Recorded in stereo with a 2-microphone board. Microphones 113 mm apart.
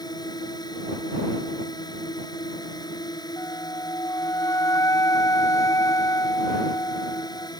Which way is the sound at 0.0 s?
40° left (ahead or behind).